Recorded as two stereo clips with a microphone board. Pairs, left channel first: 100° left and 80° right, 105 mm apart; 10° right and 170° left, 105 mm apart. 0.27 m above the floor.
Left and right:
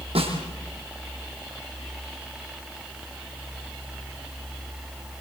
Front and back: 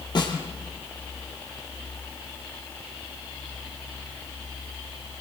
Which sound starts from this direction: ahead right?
A snare drum, at 0.1 s.